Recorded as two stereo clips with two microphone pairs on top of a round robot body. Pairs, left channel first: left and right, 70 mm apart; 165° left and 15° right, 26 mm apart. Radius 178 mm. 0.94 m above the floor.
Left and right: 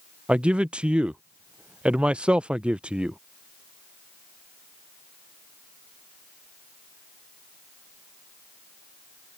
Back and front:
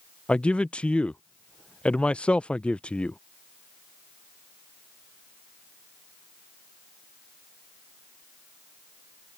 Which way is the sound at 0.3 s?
160° right.